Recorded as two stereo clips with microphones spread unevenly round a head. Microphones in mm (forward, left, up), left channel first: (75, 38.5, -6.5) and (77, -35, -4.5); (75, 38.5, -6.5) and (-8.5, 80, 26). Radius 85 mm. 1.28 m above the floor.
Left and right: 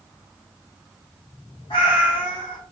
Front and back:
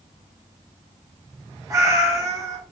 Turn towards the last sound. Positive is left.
turn(degrees=110)